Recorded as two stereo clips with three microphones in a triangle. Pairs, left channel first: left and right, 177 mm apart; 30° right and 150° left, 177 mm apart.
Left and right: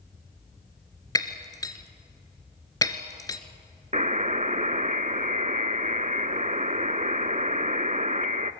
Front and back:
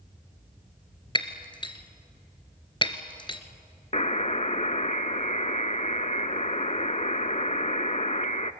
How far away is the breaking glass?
About 1.4 m.